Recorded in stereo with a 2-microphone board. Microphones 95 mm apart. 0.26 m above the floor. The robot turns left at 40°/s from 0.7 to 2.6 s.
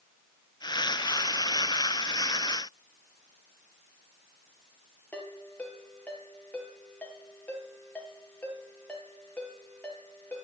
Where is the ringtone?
15° left (ahead or behind), 4.5 m.